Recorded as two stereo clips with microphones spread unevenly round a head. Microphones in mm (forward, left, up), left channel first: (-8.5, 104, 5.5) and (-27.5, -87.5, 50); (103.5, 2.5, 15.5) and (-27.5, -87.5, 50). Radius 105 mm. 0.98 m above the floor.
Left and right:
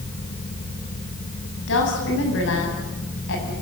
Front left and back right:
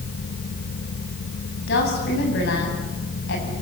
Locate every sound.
1.7 s a woman speaking: 55° left, 8.5 m